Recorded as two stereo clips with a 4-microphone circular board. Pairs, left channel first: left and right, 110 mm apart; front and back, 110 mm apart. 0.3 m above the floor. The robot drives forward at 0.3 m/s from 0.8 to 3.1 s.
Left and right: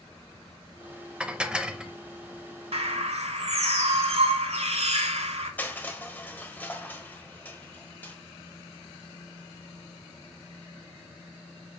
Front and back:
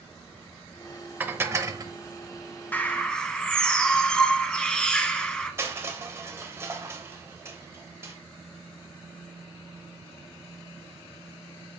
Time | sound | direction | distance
1.2 | dishes clattering | 150° right | 0.6 m
2.7 | a bird | 75° right | 0.9 m
5.6 | crushing | 145° left | 1.1 m